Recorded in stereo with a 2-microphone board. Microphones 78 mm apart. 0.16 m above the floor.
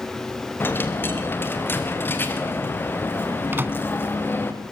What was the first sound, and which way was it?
A dropped coin, 25° left (ahead or behind).